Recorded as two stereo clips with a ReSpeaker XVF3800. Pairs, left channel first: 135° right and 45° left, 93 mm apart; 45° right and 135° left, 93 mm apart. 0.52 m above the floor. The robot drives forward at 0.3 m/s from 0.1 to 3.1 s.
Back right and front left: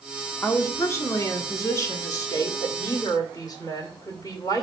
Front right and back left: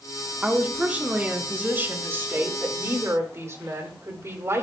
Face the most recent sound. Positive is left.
turn(degrees=-170)